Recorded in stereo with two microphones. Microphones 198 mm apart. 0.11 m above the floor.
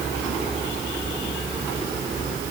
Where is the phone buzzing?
I don't hear a phone buzzing.